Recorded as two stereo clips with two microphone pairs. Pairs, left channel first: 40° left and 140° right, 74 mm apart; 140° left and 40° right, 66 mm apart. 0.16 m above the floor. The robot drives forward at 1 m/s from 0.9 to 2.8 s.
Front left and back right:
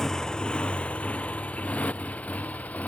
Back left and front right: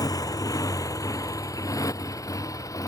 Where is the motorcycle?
125° left; by 2.9 s 110° left.